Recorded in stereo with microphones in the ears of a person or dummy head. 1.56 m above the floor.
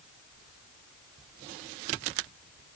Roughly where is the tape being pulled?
I don't hear tape being pulled.